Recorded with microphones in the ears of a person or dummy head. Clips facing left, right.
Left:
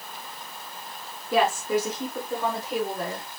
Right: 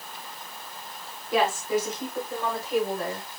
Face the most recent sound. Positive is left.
turn(degrees=65)  # may be behind; listen again after turning